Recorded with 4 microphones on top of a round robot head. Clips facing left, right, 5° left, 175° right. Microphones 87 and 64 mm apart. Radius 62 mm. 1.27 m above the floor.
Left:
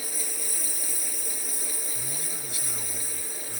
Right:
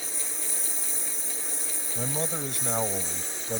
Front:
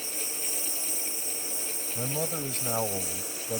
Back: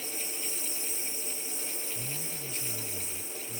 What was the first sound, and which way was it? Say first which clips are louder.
A lawn mower: left 1 dB, front 1 dB; 25° right.